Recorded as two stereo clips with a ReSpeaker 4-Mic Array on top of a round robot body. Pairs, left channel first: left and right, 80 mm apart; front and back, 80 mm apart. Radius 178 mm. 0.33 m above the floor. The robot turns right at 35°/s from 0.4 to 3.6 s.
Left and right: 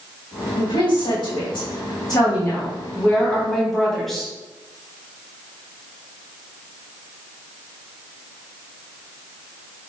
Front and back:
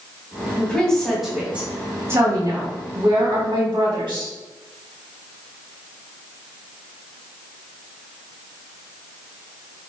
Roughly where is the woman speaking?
Left.